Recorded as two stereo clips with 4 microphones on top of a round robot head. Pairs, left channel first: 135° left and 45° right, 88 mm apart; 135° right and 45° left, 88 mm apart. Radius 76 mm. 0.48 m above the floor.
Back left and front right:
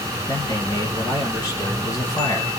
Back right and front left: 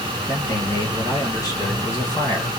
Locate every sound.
0.3 s a man speaking: 165° left, 2.0 m